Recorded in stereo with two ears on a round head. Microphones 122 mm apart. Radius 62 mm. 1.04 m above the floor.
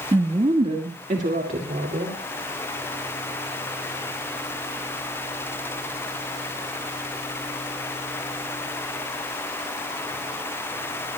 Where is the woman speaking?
30° right (ahead or behind), 1.4 m; by 2.2 s 65° right (ahead or behind), 3 m.